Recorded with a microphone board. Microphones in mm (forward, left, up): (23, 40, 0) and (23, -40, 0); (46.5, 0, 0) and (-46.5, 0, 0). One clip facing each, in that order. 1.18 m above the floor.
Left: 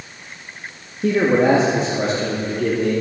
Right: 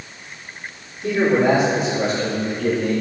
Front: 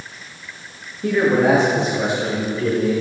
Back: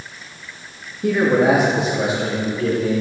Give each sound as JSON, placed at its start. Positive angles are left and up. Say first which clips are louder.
{"t": 1.0, "sound": "a man speaking", "louder": "left 1 dB, even", "azimuth_deg": 100, "distance_m": 1.3}